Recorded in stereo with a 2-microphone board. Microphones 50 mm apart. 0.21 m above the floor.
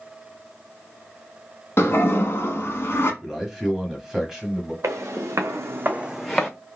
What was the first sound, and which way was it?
A toilet flushing, 55° left (ahead or behind).